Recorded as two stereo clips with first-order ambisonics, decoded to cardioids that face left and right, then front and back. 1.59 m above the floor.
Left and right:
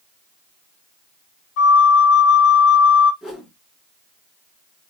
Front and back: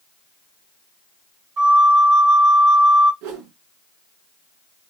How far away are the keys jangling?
No keys jangling in this recording.